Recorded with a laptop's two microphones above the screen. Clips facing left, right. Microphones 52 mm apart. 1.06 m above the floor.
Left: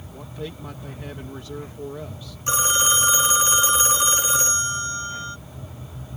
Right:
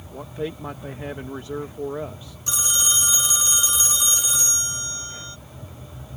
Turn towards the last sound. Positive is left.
turn(degrees=40)  # may be behind; listen again after turning